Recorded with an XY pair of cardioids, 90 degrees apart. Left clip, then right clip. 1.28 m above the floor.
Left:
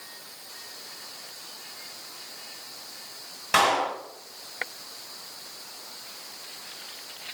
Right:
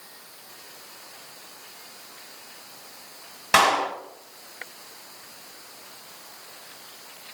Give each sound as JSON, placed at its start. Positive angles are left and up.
{"t": 3.5, "sound": "a clap", "azimuth_deg": -45, "distance_m": 1.4}